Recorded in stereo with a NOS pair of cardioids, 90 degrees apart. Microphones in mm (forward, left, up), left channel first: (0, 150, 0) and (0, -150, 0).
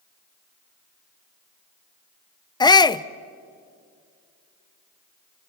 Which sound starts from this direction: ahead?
A shout, at 2.6 s.